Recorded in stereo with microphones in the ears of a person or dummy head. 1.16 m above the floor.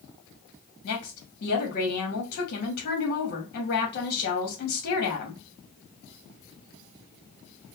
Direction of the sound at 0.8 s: 50° left (ahead or behind).